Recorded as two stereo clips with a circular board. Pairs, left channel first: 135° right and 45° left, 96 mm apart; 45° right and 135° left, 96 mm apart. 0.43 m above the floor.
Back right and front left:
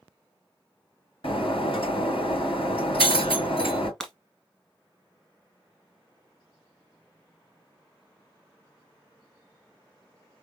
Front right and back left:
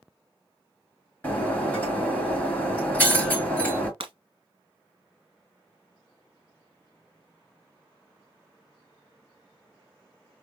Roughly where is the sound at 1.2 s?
Behind right.